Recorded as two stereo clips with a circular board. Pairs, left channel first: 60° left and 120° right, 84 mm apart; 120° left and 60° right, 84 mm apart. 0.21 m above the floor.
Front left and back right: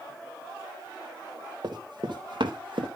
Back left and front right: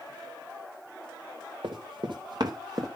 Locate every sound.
1.6 s running footsteps: 85° right, 3 m; by 2.9 s 105° right, 2.5 m